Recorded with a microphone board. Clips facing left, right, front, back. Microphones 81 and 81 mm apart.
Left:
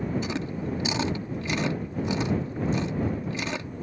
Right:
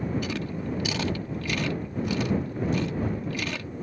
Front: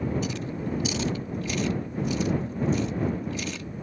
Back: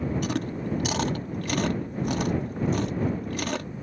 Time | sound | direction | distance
0.2 | chewing | 155° left | ?